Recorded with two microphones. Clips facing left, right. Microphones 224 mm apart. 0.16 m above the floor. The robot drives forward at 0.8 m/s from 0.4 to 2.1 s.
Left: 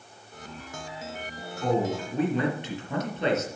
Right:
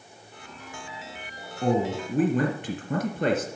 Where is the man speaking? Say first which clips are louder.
Right 2 dB; 45° right (ahead or behind), 3 m; by 3.5 s 50° right (ahead or behind), 3 m.